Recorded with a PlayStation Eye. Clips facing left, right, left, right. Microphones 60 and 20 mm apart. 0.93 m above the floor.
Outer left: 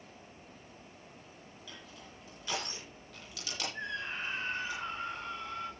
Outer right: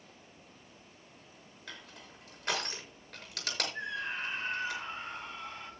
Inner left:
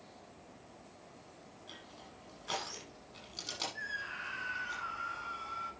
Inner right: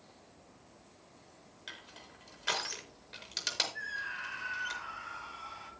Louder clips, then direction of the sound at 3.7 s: Outer right 1 dB, inner right 2 dB; 5° right (ahead or behind).